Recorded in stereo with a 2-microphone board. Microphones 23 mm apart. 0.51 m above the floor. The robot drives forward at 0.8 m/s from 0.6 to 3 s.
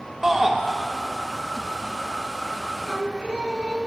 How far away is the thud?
No thud in this recording.